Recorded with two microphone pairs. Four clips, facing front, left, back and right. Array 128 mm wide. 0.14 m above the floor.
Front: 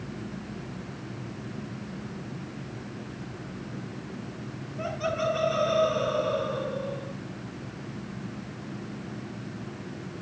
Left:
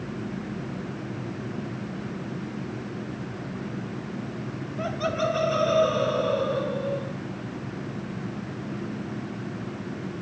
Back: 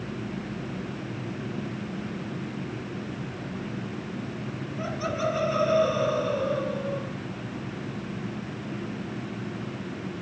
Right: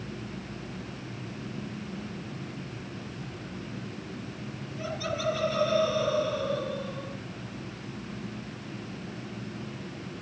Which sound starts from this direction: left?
Laughter, at 4.8 s.